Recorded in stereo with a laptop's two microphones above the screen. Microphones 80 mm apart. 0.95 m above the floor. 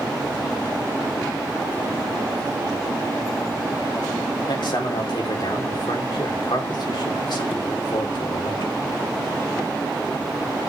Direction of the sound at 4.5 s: 70° left (ahead or behind).